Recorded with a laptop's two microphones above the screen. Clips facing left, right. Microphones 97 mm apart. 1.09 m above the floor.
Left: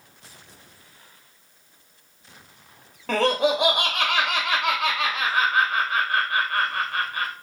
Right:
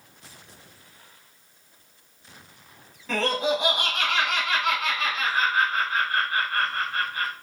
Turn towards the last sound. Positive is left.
turn(degrees=75)  # may be behind; listen again after turning